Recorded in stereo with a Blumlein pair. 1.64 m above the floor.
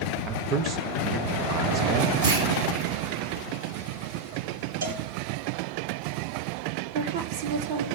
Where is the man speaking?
30° right, 1.3 m.